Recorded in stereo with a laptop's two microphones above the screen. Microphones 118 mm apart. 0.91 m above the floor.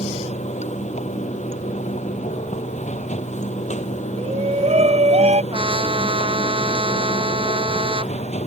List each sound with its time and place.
0.0 s running water: 85° left
4.2 s a shout: 70° right (ahead or behind)
5.5 s a trumpet: 50° right (ahead or behind)